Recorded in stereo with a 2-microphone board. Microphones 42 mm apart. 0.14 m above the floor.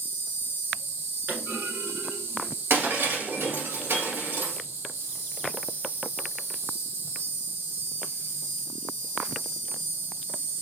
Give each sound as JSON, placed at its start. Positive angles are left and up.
{"t": 0.0, "sound": "an insect", "side_deg": -75, "distance_m": 2.0}
{"t": 1.3, "sound": "a clunk", "side_deg": -45, "distance_m": 1.6}
{"t": 2.7, "sound": "breaking glass", "side_deg": -65, "distance_m": 1.7}